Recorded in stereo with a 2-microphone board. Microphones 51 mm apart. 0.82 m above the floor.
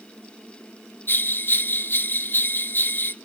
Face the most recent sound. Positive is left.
turn(degrees=40)  # may be behind; listen again after turning